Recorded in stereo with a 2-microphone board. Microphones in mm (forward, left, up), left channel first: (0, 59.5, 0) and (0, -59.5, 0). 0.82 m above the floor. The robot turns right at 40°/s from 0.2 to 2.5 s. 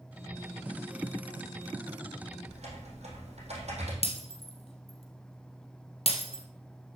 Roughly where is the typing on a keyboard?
Right.